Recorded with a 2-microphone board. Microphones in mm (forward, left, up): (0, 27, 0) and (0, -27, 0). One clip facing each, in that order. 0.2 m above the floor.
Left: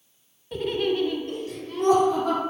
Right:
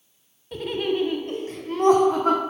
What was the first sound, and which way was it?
Laughter, 5° left (ahead or behind).